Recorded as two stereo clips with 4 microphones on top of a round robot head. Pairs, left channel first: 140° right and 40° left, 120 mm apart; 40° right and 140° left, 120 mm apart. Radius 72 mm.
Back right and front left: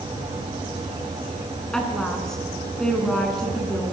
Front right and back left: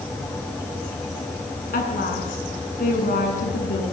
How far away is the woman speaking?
About 7.5 m.